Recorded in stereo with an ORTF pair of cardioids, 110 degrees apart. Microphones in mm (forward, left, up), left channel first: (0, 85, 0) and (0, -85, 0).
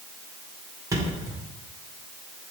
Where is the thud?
20° right, 1.9 m.